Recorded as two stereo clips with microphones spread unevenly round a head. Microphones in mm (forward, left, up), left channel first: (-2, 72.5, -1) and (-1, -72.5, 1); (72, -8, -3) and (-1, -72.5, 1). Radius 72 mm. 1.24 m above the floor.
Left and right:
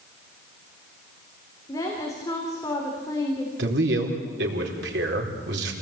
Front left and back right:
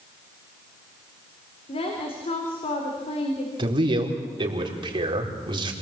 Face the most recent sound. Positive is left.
turn(degrees=-105)